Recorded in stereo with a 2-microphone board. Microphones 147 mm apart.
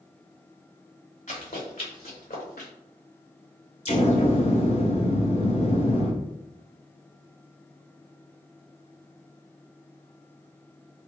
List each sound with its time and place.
1.3 s running footsteps: 60° left (ahead or behind), 1.9 m; by 2.7 s 80° left, 1.8 m
3.9 s an explosion: 45° left (ahead or behind), 0.8 m